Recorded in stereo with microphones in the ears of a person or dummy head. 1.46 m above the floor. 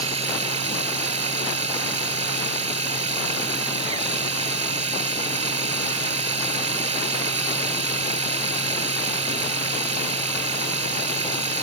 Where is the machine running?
40° right (ahead or behind).